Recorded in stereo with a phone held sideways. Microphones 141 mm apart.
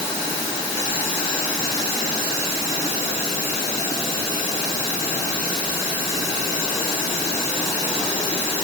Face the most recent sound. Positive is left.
No sound to turn to.